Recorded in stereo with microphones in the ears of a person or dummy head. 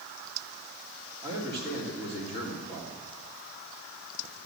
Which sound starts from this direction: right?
A man speaking, at 1.2 s.